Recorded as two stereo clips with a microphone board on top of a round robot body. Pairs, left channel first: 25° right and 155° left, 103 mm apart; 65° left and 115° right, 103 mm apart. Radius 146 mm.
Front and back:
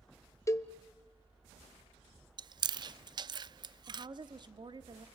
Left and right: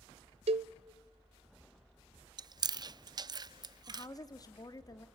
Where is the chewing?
160° right, 0.5 m.